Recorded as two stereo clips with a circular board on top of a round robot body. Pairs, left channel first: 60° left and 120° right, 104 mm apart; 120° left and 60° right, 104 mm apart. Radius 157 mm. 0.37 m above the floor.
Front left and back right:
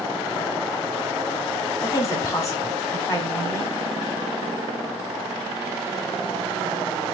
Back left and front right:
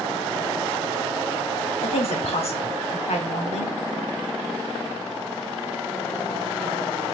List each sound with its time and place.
1.8 s a woman speaking: 120° left, 3.5 m